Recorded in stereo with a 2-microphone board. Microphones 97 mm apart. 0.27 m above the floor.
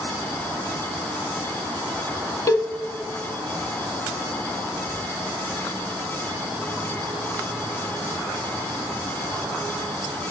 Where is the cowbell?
35° left (ahead or behind), 1.1 m.